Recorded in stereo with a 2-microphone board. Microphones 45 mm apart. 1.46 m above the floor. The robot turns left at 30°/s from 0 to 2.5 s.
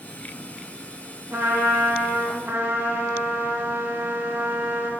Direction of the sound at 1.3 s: 75° right.